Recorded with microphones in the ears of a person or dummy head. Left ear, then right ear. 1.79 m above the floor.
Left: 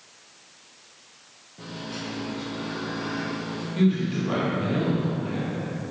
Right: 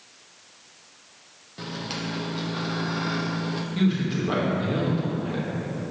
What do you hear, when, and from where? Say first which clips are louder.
1.6 s a microwave: right 3 dB; 65° right (ahead or behind), 0.8 m
3.8 s a man speaking: left 2 dB; 20° right (ahead or behind), 2 m